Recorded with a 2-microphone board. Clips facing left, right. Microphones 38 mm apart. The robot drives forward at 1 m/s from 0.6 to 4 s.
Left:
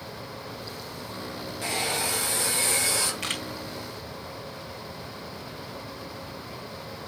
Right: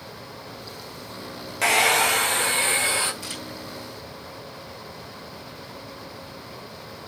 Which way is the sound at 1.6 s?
85° right.